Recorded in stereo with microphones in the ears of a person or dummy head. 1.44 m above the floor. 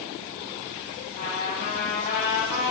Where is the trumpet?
60° left (ahead or behind), 4.5 m.